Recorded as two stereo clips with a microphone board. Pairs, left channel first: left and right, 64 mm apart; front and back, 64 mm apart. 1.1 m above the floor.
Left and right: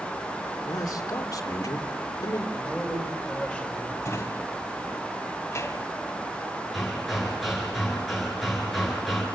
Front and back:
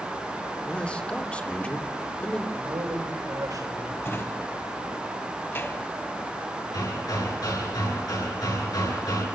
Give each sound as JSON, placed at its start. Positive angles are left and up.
{"t": 0.7, "sound": "a man speaking", "azimuth_deg": 70, "distance_m": 2.5}
{"t": 2.5, "sound": "a man speaking", "azimuth_deg": 170, "distance_m": 6.5}
{"t": 4.0, "sound": "a drawer", "azimuth_deg": 50, "distance_m": 2.0}
{"t": 6.7, "sound": "hammering", "azimuth_deg": 0, "distance_m": 6.5}